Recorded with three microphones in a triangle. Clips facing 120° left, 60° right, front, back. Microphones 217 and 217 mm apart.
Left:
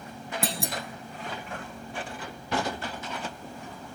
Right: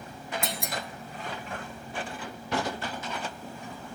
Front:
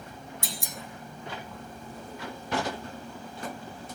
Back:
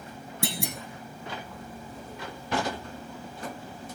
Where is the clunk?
175° left, 1.3 m.